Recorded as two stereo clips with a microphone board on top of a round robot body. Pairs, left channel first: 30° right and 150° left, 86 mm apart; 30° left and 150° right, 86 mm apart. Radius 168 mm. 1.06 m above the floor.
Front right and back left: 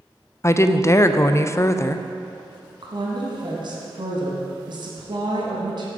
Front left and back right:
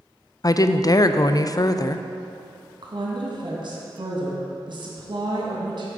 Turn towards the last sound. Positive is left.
turn(degrees=180)